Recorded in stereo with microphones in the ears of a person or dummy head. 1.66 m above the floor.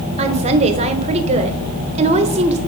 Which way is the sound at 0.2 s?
30° right (ahead or behind).